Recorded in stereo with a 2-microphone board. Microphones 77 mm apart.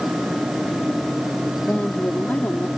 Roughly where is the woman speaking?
Centre.